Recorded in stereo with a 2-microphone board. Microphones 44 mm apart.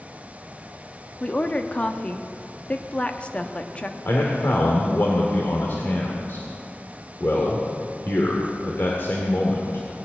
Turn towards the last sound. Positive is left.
turn(degrees=60)  # may be behind; listen again after turning